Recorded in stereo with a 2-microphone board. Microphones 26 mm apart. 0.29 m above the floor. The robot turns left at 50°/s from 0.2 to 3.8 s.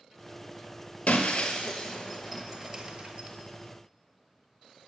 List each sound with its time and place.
1.1 s breaking glass: 55° left (ahead or behind), 0.9 m; by 3.3 s 55° right (ahead or behind), 0.9 m